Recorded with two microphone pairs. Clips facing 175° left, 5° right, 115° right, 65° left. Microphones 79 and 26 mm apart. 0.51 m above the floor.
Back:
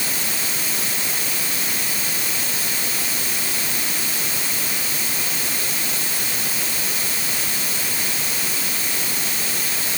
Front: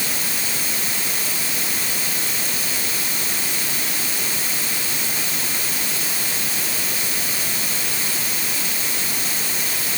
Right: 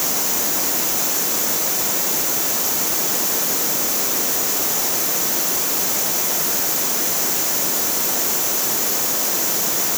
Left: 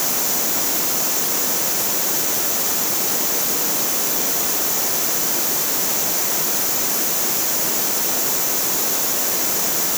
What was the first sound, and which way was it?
Only background noise.